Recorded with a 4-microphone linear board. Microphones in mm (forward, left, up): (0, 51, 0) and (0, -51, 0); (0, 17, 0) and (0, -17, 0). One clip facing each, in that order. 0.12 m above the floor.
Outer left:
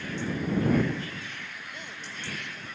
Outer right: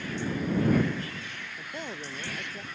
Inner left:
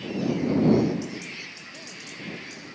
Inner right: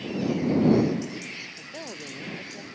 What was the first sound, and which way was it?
A woman speaking, 35° right (ahead or behind).